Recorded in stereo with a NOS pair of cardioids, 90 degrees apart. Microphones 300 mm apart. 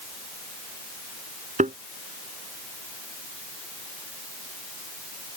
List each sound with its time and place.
1.6 s a thud: 25° right